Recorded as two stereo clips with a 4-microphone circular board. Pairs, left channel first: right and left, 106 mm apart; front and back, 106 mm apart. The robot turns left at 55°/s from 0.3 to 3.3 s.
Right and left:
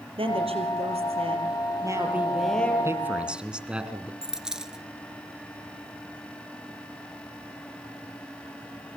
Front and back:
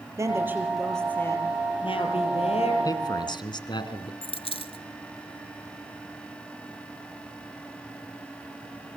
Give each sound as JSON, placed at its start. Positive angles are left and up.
{"t": 0.2, "sound": "a woman speaking", "azimuth_deg": 120, "distance_m": 5.5}
{"t": 2.9, "sound": "a man speaking", "azimuth_deg": 40, "distance_m": 2.5}
{"t": 4.2, "sound": "a dropped coin", "azimuth_deg": 10, "distance_m": 1.2}